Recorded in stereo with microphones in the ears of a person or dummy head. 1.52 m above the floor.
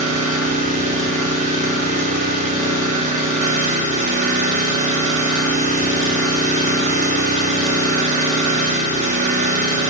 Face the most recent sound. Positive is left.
turn(degrees=-35)  # may be behind; listen again after turning